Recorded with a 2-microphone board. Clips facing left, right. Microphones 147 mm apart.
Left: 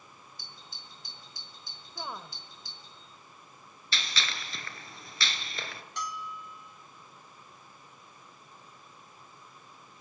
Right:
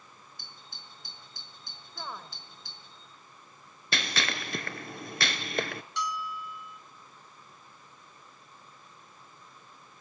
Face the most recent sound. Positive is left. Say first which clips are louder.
# right 4 dB
turn(degrees=50)  # may be behind; listen again after turning